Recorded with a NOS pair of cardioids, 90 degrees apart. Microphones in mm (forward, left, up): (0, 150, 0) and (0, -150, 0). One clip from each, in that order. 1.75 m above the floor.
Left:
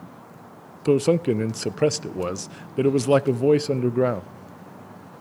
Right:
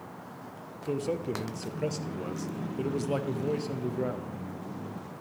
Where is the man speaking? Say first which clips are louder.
Left 12 dB; 55° left, 0.6 m.